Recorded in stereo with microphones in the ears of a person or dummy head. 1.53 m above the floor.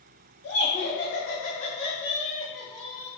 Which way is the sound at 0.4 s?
70° left (ahead or behind).